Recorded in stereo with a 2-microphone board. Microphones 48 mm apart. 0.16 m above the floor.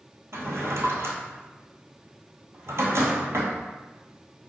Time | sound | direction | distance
0.3 | a drawer | 70° right (ahead or behind) | 1.0 m